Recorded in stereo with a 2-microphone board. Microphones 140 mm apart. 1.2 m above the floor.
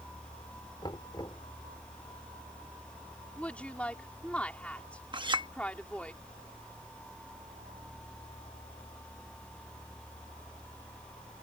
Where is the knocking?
35° left (ahead or behind).